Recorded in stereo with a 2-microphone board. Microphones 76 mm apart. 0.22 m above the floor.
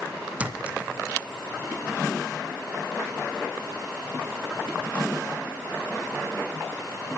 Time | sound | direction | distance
0.4 | a clink | 15° right (ahead or behind) | 1.9 m